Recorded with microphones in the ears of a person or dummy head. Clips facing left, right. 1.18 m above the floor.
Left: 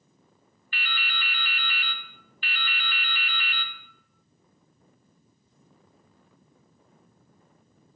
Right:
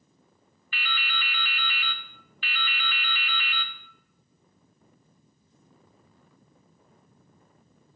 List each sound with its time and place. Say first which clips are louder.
0.7 s dripping: right 1 dB; 50° right (ahead or behind), 0.5 m